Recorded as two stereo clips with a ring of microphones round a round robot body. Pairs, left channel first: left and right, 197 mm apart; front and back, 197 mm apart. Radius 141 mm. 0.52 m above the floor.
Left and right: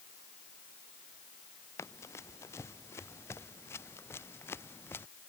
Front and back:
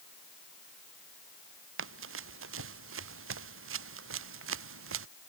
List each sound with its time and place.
1.8 s running footsteps: 170° left; by 5.1 s 175° left